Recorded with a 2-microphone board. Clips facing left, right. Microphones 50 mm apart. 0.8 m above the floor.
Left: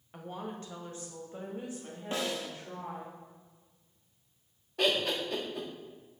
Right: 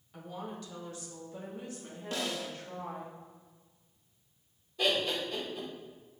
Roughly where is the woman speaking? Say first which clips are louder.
Left 1 dB; left.